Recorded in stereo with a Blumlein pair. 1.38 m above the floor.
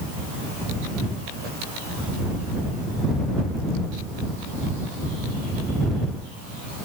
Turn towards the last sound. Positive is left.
No sound to turn to.